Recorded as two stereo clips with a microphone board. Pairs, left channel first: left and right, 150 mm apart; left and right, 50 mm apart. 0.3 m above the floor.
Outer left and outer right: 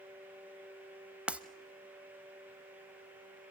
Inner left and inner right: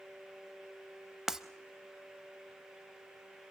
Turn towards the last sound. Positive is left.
turn(degrees=-10)  # may be behind; listen again after turning